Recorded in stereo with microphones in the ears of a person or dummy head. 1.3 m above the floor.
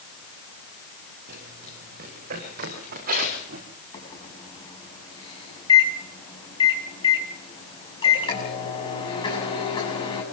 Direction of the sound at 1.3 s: 60° right (ahead or behind).